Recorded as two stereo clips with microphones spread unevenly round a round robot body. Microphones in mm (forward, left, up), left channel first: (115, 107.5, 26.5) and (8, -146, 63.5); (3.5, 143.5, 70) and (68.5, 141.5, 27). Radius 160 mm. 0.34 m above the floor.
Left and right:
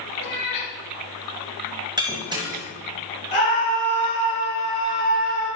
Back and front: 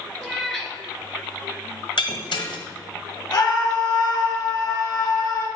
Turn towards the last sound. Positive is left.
turn(degrees=135)